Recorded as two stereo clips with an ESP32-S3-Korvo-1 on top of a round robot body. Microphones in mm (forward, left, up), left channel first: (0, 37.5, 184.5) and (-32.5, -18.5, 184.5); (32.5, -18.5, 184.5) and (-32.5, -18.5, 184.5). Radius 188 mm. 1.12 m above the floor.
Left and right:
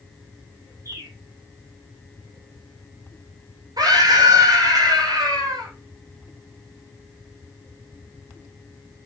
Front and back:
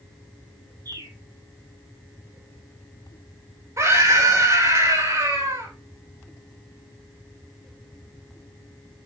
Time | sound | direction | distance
0.8 | a bird | 165° right | 3 m
3.8 | a scream | 135° right | 6.5 m